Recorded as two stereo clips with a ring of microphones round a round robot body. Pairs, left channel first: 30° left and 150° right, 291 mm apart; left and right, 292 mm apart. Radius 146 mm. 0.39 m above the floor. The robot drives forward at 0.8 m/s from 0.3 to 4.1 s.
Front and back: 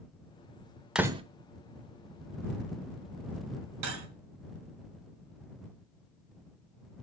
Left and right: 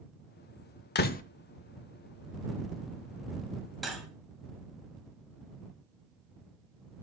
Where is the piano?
No piano in this recording.